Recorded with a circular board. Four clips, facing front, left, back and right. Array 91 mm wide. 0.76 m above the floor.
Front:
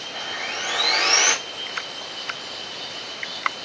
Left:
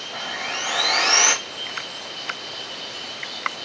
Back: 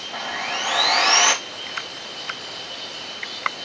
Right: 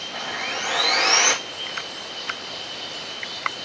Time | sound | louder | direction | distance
0.1 | sawing | even, back 4 dB | 175° left | 2.5 m